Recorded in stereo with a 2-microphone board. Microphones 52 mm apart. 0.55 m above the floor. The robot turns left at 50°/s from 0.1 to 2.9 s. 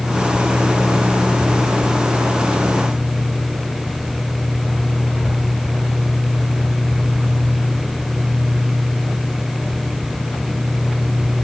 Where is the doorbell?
No doorbell in this recording.